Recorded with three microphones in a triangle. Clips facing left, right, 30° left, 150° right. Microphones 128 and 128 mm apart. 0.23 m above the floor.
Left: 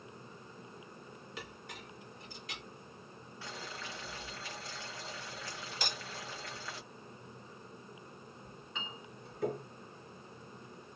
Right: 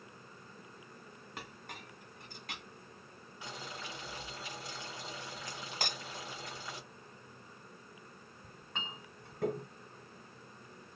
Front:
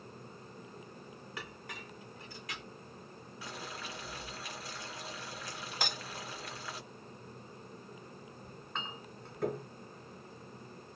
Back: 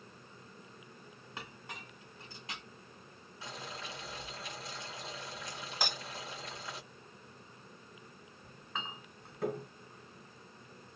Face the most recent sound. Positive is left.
turn(degrees=-65)